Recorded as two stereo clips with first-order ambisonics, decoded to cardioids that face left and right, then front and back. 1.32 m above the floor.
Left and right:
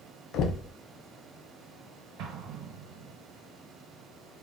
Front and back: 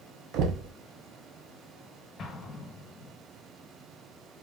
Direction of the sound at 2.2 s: 65° right.